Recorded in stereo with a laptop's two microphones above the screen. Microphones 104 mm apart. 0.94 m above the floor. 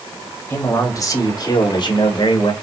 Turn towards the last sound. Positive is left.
turn(degrees=60)  # may be behind; listen again after turning